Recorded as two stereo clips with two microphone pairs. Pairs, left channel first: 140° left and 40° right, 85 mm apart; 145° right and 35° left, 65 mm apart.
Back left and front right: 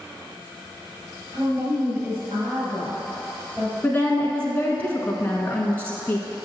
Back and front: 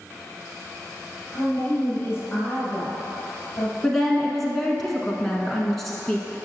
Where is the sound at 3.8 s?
140° left, 1.0 m.